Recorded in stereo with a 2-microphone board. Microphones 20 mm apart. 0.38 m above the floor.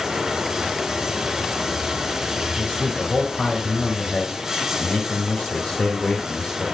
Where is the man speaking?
55° left (ahead or behind), 4 m.